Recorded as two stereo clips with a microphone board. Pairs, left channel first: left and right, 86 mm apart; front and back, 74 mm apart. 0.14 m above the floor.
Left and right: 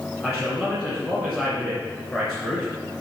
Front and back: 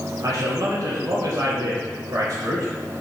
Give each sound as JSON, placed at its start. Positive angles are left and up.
{"t": 0.2, "sound": "a man speaking", "azimuth_deg": 175, "distance_m": 2.0}